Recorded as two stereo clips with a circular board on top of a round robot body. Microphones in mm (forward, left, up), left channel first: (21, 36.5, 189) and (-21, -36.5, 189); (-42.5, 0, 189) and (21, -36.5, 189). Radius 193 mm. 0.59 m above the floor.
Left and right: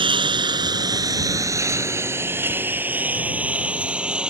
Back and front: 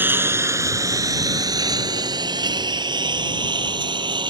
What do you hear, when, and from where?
0.0 s a lawn mower: 95° right; by 4.3 s 40° right